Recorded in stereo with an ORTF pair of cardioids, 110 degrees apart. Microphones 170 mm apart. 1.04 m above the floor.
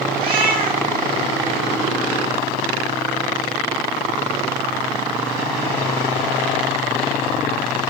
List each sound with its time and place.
0.2 s a cat meowing: 60° right, 3 m